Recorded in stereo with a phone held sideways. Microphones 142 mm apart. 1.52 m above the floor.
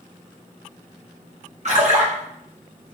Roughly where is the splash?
Right.